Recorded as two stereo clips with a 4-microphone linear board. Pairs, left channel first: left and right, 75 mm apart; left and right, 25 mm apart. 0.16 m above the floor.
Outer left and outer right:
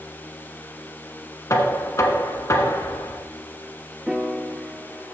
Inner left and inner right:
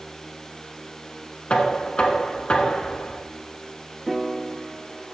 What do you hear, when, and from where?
1.5 s knocking: 45° left (ahead or behind), 1.7 m
4.1 s a piano: 10° right (ahead or behind), 1.1 m